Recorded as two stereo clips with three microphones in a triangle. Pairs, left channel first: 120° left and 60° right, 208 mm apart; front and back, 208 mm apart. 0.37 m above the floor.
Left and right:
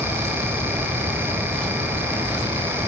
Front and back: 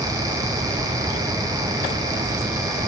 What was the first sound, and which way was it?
Only background noise.